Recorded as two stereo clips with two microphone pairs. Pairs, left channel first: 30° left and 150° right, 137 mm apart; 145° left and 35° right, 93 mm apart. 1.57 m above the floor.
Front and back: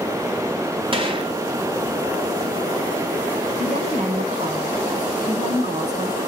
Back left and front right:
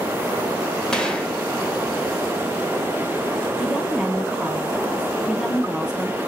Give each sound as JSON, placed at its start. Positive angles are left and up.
{"t": 0.9, "sound": "a gunshot", "azimuth_deg": -140, "distance_m": 1.6}
{"t": 3.6, "sound": "a woman speaking", "azimuth_deg": -120, "distance_m": 1.9}